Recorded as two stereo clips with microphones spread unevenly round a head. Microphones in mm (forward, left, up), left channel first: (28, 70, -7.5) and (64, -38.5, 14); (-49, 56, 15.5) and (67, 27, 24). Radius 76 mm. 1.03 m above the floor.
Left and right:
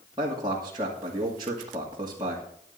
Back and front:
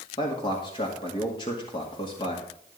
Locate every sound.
0.2 s a man speaking: 140° right, 2 m